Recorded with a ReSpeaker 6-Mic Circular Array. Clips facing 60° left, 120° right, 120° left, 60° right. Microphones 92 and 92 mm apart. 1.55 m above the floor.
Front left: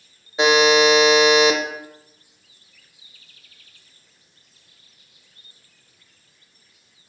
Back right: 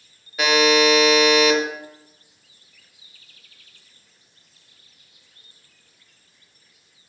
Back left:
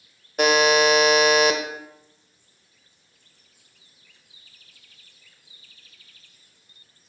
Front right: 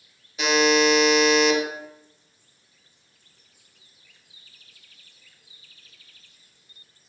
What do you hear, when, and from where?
0.4 s a buzzer: 120° left, 0.8 m